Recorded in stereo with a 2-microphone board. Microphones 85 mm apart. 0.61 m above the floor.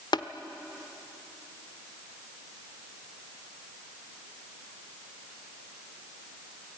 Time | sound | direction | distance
0.1 | tapping | 65° left (ahead or behind) | 0.9 m